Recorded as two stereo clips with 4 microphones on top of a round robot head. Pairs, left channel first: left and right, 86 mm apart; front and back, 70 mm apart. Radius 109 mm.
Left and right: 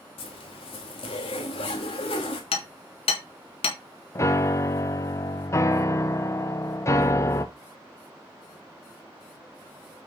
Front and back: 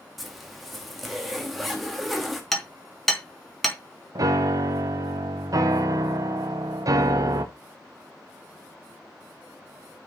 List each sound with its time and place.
0.2 s a zipper: 90° left, 1.4 m
2.5 s hammering: 85° left, 2 m
4.2 s a piano: 145° left, 0.9 m